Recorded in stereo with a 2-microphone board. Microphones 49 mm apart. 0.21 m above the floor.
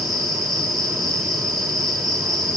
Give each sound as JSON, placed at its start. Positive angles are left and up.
{"t": 0.0, "sound": "an insect", "side_deg": 0, "distance_m": 10.0}